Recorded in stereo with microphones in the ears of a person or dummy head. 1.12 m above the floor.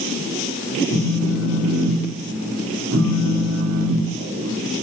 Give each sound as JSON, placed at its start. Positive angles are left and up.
{"t": 0.9, "sound": "a phone buzzing", "side_deg": -70, "distance_m": 1.5}